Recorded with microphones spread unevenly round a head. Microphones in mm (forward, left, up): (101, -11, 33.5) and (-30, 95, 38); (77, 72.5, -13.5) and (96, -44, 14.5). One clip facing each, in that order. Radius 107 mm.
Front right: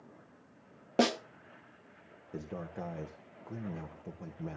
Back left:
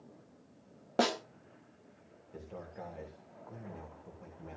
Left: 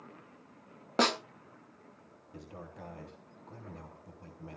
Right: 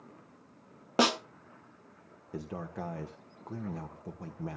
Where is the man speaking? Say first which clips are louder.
Front right 5 dB, right 9 dB; 80° right, 1.2 m.